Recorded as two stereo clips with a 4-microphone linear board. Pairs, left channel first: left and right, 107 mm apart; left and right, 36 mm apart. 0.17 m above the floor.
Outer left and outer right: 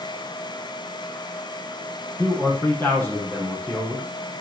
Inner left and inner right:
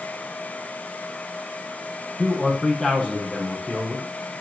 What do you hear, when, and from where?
2.2 s a man speaking: 20° left (ahead or behind), 7 m